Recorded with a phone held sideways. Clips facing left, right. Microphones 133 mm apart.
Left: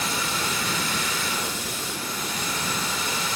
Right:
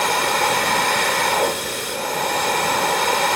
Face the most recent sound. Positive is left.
turn(degrees=-75)  # may be behind; listen again after turning